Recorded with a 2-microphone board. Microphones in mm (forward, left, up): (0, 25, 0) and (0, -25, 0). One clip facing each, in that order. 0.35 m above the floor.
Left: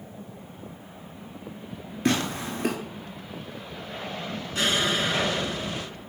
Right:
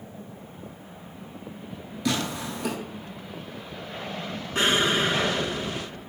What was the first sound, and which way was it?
Tearing paper, 35° left (ahead or behind).